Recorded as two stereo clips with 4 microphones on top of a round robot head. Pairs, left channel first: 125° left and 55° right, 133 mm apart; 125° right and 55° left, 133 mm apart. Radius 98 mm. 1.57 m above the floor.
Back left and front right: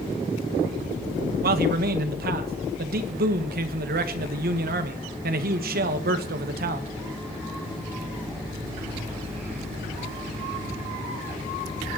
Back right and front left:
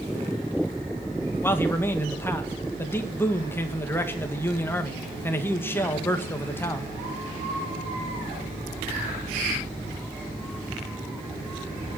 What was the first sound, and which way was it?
A man speaking, 50° right.